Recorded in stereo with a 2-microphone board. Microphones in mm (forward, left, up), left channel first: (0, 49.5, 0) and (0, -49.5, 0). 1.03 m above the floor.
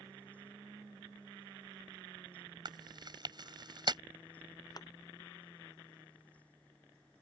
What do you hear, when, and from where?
2.6 s chewing: 45° right (ahead or behind)
4.8 s a thud: 40° left (ahead or behind)